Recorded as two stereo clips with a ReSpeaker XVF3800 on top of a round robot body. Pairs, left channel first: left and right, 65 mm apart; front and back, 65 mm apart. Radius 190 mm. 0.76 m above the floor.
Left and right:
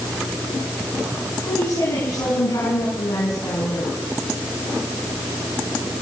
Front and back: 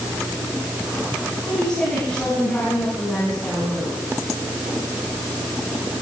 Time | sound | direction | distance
1.4 | a woman speaking | 75° left | 9.5 m